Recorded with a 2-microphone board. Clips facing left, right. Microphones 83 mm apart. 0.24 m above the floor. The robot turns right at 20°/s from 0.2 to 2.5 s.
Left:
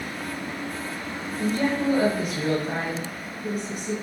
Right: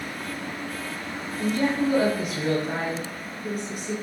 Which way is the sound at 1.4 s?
10° right (ahead or behind).